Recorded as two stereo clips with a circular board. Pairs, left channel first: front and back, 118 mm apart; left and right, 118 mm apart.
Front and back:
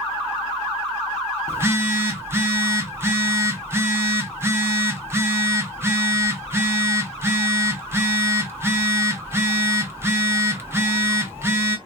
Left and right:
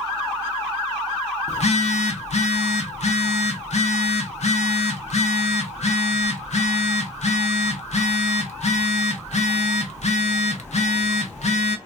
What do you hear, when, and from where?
1.5 s a phone buzzing: 110° left, 0.6 m